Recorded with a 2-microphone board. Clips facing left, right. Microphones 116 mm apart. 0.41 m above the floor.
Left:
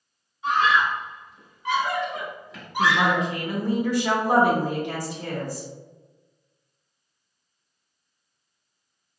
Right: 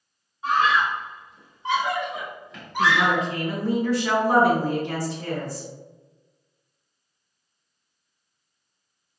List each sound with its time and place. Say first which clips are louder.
0.4 s a scream: even; 45° right (ahead or behind), 1.7 m; by 3.3 s 30° left (ahead or behind), 1.0 m
2.8 s a woman speaking: even; 15° left (ahead or behind), 0.8 m